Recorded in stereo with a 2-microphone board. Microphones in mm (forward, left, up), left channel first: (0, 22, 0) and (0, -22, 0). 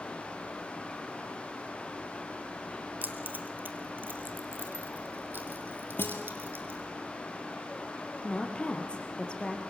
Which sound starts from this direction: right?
Keys jangling, at 3.0 s.